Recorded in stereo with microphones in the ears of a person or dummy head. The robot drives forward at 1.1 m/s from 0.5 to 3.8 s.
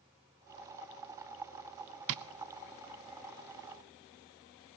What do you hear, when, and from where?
2.1 s tapping: 65° right (ahead or behind), 0.6 m; by 2.2 s 70° right (ahead or behind), 0.5 m